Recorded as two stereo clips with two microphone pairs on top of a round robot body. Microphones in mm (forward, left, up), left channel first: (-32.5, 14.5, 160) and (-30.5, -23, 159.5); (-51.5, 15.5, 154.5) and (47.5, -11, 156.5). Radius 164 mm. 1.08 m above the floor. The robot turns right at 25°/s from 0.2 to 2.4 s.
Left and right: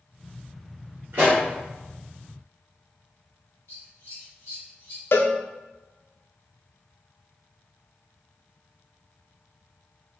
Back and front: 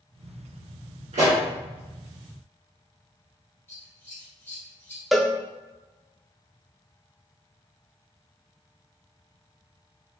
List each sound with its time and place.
1.1 s a pop: 35° right, 2.0 m; by 1.4 s 25° right, 2.0 m
3.7 s scissors: 95° left, 1.6 m
5.1 s a cowbell: 75° left, 0.6 m